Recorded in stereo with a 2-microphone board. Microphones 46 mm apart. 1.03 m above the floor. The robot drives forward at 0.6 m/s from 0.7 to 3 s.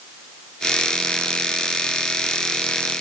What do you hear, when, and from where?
Only background noise.